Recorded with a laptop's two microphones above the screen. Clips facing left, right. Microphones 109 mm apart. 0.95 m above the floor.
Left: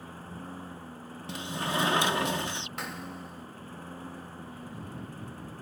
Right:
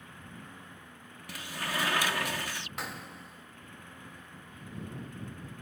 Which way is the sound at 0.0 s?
35° left (ahead or behind).